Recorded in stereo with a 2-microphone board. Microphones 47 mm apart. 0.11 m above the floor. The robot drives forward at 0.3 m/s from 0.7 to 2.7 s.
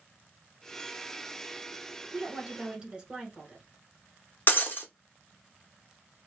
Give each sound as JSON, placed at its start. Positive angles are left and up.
{"t": 2.1, "sound": "a woman speaking", "side_deg": -20, "distance_m": 1.1}
{"t": 4.5, "sound": "breaking glass", "side_deg": 50, "distance_m": 0.8}